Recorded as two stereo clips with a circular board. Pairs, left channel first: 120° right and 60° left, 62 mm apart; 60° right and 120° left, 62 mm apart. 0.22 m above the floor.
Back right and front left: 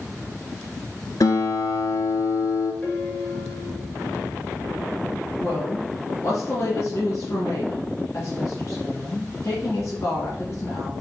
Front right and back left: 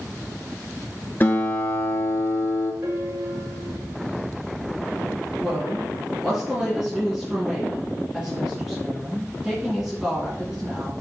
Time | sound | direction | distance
1.2 | a guitar | 115° right | 1.0 m
2.8 | a piano | 165° left | 3 m
5.4 | a woman speaking | 160° right | 2 m